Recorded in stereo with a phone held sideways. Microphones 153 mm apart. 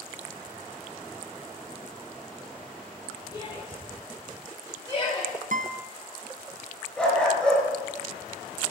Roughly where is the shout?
Left.